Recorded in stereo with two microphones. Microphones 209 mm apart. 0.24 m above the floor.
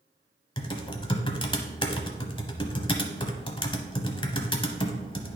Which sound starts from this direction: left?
Typing on a keyboard, at 0.6 s.